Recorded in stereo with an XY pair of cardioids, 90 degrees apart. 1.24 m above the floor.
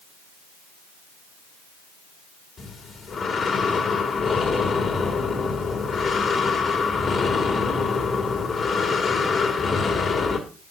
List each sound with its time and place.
2.6 s breathing: 60° left, 1.9 m